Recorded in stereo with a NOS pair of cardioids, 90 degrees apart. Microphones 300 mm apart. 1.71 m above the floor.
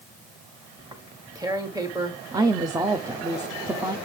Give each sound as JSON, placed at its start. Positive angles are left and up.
{"t": 0.8, "sound": "tearing paper", "azimuth_deg": -10, "distance_m": 1.5}
{"t": 2.3, "sound": "a woman speaking", "azimuth_deg": -10, "distance_m": 0.7}